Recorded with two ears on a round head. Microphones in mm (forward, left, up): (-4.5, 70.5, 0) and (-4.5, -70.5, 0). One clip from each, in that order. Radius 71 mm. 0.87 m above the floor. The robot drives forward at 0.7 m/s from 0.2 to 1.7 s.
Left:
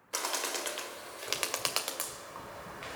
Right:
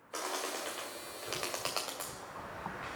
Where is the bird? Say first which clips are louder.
Left 3 dB; 85° left, 1.9 m; by 3.0 s 60° left (ahead or behind), 2 m.